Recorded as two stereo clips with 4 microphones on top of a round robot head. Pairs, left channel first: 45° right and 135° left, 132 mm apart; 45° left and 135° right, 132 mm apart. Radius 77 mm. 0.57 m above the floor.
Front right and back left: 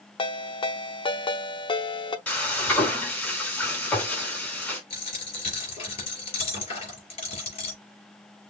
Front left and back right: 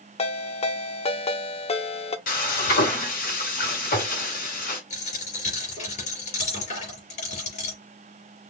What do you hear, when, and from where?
0.2 s a ringtone: 5° left, 0.8 m
2.3 s frying: 35° left, 4 m
4.9 s a dropped coin: 5° left, 4 m